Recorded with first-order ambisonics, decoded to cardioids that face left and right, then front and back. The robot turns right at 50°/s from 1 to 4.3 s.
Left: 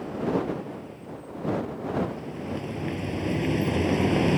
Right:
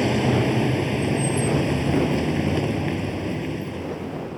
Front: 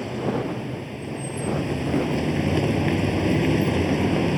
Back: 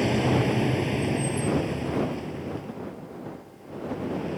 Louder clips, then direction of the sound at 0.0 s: Right 7 dB, back 3 dB; 115° right.